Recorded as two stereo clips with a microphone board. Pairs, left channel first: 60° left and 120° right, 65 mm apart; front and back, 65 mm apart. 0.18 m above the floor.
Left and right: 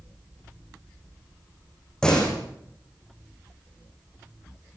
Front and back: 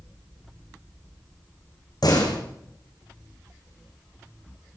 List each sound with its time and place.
2.0 s a door slam: 20° right, 8 m